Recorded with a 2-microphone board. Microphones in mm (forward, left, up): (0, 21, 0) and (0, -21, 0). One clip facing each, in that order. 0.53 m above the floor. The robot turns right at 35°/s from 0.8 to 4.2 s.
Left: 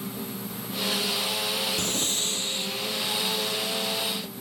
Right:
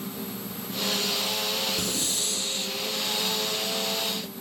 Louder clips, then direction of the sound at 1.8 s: Left 1 dB; 130° left.